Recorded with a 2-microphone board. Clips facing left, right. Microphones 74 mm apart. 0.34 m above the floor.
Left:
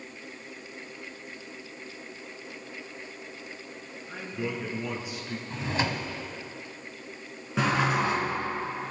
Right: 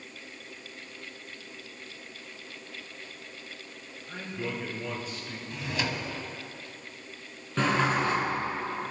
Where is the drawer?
30° left (ahead or behind), 1.1 m.